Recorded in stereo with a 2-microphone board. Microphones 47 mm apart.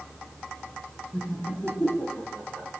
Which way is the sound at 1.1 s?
20° left (ahead or behind).